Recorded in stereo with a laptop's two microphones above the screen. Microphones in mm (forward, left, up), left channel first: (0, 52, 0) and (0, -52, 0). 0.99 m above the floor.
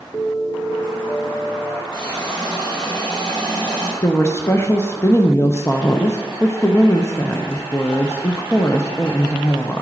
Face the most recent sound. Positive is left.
turn(degrees=25)  # may be behind; listen again after turning